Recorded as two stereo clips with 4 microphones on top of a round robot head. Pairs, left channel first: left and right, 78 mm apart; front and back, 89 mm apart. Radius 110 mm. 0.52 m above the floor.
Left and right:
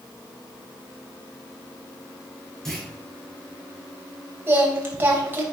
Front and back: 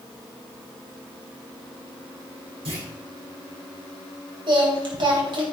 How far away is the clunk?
About 5 m.